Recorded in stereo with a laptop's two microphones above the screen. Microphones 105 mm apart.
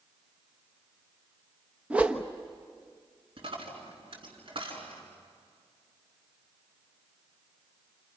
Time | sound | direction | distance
1.9 | a whoosh | 10° right (ahead or behind) | 1.2 m
3.4 | a dropped coin | 60° right (ahead or behind) | 4 m